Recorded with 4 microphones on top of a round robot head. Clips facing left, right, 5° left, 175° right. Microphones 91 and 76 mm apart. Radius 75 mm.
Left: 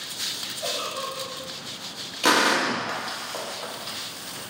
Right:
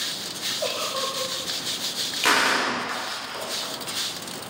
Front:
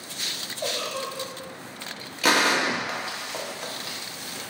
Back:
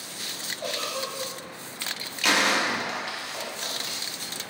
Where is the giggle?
60° right, 0.7 m.